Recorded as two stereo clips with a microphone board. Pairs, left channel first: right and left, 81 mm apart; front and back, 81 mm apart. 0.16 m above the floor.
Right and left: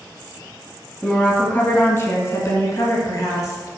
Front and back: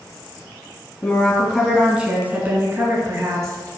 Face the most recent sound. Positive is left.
turn(degrees=-135)